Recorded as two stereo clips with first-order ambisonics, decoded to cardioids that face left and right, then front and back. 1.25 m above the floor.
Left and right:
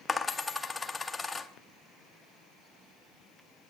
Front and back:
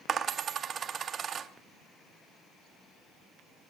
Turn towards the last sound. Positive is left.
turn(degrees=155)